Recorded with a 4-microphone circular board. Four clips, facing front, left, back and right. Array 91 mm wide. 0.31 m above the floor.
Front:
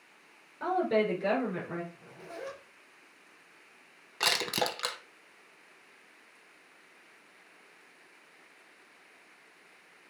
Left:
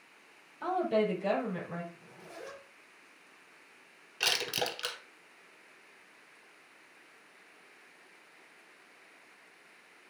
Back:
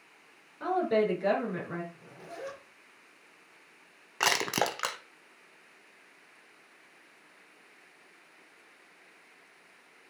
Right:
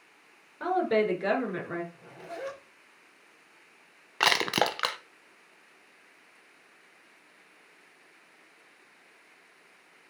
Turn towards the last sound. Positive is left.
turn(degrees=-110)